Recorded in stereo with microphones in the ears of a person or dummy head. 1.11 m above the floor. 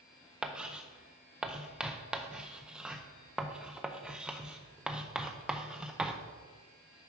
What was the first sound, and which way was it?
Writing, 5° right (ahead or behind).